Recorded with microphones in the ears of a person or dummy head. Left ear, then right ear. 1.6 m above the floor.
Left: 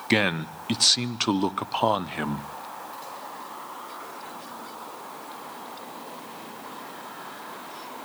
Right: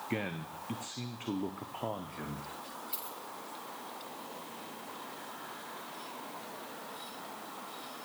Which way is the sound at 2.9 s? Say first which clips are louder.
Left 6 dB; 55° right (ahead or behind).